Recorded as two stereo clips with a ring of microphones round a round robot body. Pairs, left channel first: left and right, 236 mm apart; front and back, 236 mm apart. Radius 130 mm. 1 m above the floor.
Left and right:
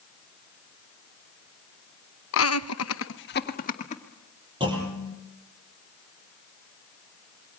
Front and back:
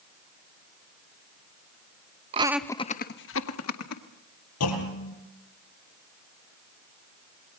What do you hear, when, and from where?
2.3 s laughter: 115° left, 0.9 m; by 4.0 s 25° left, 2 m
4.6 s a clunk: 15° right, 5.5 m